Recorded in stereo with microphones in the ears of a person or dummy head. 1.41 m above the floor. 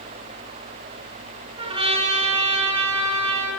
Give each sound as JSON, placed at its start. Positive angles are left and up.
{"t": 1.6, "sound": "a trumpet", "side_deg": -25, "distance_m": 8.0}